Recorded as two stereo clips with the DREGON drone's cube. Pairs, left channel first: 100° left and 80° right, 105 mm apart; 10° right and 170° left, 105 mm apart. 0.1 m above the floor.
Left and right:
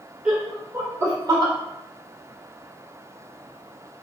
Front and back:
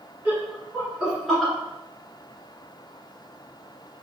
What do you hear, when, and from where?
0.2 s laughter: 155° right, 1.2 m; by 1.5 s 100° right, 1.6 m